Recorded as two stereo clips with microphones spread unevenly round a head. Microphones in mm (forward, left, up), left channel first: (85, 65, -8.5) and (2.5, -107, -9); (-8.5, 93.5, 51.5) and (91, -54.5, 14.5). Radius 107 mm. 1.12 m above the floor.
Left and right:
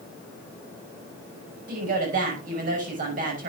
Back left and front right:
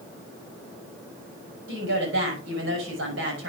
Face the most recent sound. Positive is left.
turn(degrees=-70)